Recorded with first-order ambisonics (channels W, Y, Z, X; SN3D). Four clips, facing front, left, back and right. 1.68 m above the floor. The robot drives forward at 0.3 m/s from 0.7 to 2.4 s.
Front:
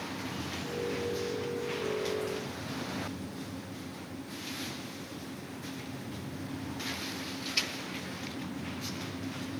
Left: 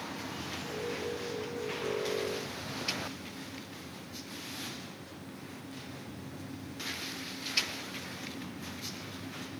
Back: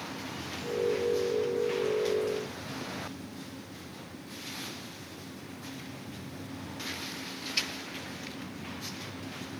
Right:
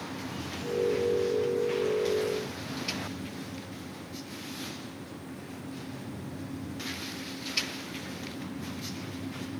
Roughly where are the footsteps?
I don't hear footsteps.